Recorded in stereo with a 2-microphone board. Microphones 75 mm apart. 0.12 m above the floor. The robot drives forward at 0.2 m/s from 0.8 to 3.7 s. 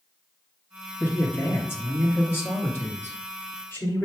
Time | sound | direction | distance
1.0 | a man speaking | 30° left (ahead or behind) | 2.0 m